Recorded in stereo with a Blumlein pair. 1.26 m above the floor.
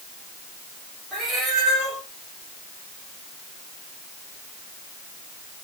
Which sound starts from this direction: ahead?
A cat meowing, at 1.1 s.